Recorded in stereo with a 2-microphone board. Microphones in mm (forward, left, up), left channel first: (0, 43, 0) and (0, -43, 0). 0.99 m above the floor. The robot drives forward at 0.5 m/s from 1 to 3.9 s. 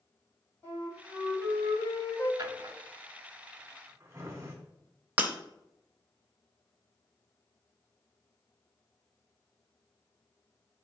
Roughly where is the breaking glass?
Right.